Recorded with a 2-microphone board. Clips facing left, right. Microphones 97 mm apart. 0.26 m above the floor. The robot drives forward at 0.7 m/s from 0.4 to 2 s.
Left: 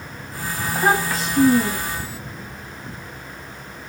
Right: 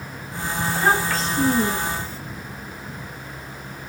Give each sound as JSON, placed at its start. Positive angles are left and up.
{"t": 0.6, "sound": "a child speaking", "side_deg": 15, "distance_m": 1.3}